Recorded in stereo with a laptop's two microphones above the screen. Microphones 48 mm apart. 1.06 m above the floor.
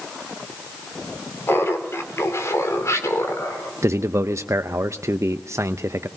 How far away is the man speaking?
About 0.5 m.